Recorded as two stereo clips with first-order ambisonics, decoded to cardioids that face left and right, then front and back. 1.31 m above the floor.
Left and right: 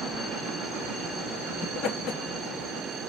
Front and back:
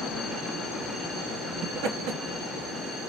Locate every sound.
1.6 s laughter: 155° left, 1.2 m